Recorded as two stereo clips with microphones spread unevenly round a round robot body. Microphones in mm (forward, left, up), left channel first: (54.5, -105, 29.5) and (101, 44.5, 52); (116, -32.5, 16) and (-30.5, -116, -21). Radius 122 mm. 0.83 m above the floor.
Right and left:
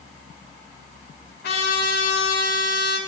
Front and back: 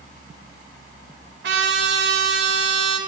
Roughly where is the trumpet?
Behind right.